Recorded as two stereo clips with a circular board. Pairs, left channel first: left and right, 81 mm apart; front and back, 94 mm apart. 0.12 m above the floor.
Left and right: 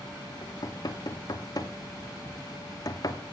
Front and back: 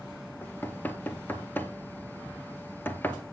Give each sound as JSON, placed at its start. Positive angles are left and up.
{"t": 0.4, "sound": "knocking", "azimuth_deg": 65, "distance_m": 1.3}